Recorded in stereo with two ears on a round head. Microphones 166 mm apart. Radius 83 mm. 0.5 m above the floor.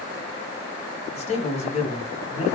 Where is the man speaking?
35° left (ahead or behind), 1.1 m.